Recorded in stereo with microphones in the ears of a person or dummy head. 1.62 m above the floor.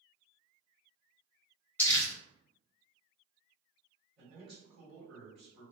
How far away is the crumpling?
About 1.7 m.